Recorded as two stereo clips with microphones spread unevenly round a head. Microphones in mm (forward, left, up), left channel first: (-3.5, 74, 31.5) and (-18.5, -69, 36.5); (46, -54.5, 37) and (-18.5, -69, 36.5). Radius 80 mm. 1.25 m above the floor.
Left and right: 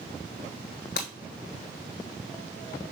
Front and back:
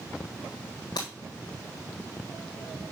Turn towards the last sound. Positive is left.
turn(degrees=55)